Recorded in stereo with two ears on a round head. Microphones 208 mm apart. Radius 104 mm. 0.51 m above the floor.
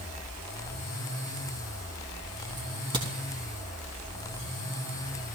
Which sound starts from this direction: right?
A crack, at 2.6 s.